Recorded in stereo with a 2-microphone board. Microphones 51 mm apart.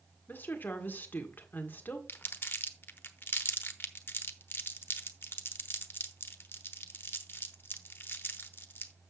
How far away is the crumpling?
About 1.0 m.